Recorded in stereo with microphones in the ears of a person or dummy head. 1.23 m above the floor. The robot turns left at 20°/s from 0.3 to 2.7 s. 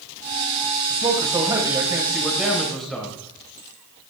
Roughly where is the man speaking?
Behind right.